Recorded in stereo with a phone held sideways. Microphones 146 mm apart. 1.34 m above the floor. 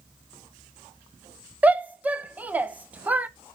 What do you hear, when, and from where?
1.6 s a shout: 10° right (ahead or behind), 0.8 m